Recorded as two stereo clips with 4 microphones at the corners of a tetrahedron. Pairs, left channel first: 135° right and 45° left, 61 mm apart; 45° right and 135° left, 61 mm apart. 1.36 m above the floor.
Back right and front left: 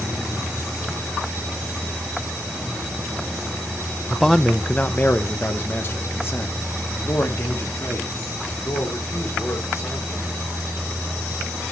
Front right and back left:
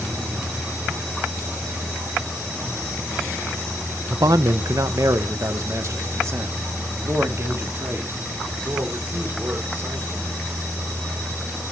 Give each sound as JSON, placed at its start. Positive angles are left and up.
{"t": 4.1, "sound": "a man speaking", "azimuth_deg": 130, "distance_m": 0.5}